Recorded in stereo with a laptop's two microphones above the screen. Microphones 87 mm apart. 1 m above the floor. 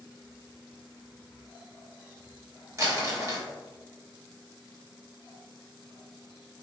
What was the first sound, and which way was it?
Crumpling, 35° right (ahead or behind).